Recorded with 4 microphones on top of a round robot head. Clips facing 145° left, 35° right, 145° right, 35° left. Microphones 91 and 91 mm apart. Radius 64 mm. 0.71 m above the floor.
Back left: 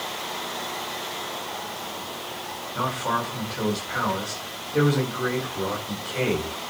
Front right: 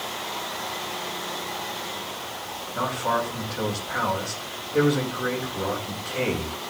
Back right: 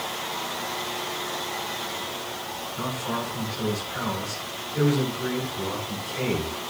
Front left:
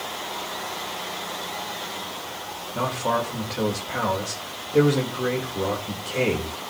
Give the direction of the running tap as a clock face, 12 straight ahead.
No running tap in this recording.